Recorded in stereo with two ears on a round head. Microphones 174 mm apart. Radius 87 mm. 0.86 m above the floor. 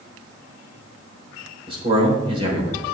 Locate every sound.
1.7 s a man speaking: 30° right (ahead or behind), 4 m